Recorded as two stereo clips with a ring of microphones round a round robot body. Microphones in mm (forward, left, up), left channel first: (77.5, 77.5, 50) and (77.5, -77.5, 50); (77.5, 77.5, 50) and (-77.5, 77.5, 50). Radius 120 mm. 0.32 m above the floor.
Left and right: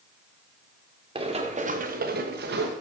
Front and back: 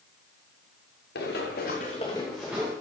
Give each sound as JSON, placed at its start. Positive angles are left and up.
{"t": 1.1, "sound": "running footsteps", "azimuth_deg": -30, "distance_m": 2.5}